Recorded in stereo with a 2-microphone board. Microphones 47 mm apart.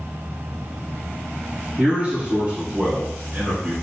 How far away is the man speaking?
About 1.5 m.